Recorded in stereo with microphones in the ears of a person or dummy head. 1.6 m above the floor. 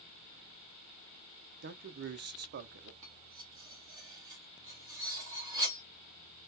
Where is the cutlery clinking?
20° right (ahead or behind), 1.2 m.